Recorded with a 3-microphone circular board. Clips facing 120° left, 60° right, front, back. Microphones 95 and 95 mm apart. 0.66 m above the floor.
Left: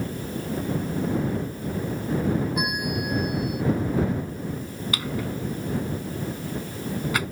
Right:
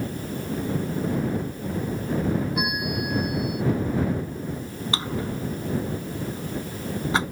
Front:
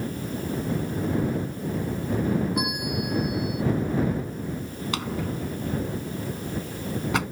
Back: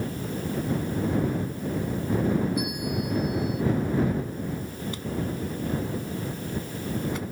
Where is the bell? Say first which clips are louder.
Even, front 1 dB; 30° left.